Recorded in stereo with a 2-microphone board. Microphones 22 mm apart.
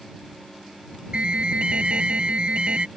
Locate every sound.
1.1 s an alarm: 50° right (ahead or behind)